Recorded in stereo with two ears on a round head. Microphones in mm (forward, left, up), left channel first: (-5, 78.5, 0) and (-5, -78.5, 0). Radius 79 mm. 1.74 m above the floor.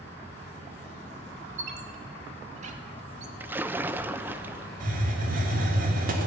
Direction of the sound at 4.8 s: 50° right (ahead or behind).